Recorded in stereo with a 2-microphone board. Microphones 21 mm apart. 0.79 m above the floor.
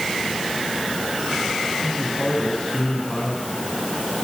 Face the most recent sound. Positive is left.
turn(degrees=70)  # may be behind; listen again after turning